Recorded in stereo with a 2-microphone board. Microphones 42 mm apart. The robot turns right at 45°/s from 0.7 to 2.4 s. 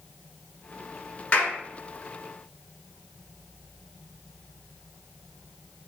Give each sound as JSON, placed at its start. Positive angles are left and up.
{"t": 1.3, "sound": "a clap", "side_deg": 30, "distance_m": 1.1}